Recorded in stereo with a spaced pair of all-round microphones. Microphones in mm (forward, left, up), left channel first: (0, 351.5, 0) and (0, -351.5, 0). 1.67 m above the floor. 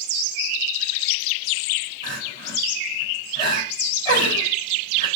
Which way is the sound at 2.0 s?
45° right (ahead or behind).